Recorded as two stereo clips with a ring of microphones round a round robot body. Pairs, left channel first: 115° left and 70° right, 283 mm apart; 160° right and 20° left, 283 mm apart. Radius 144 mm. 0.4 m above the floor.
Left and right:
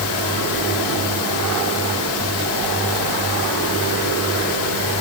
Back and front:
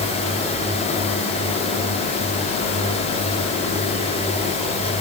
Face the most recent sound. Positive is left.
No sound to turn to.